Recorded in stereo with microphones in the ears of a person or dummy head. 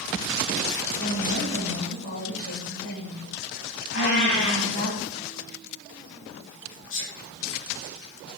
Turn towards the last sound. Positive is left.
turn(degrees=75)  # may be behind; listen again after turning